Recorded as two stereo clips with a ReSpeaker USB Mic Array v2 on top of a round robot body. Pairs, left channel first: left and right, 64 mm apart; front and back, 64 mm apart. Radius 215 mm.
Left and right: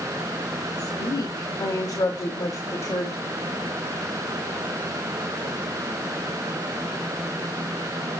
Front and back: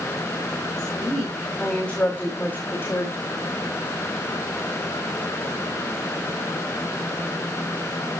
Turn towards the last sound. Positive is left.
turn(degrees=40)